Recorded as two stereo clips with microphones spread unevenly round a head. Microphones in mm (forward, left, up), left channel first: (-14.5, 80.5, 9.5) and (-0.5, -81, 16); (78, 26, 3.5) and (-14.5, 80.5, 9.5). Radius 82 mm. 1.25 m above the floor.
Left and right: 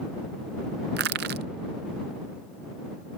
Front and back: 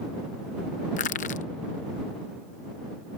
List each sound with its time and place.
1.0 s crushing: 55° right